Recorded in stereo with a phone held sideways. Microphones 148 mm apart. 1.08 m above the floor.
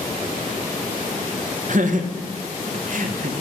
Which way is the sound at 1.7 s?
60° right (ahead or behind).